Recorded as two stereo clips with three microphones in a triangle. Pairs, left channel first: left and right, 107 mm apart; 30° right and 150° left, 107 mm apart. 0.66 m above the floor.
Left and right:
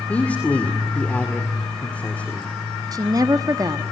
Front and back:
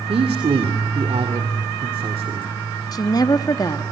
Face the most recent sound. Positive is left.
turn(degrees=-55)